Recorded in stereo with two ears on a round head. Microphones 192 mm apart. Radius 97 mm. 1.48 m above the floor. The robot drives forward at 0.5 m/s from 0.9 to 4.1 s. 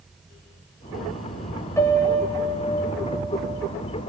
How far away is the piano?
About 1.4 m.